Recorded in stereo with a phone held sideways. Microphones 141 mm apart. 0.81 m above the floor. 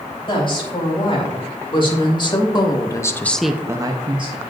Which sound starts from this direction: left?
A woman speaking, at 0.3 s.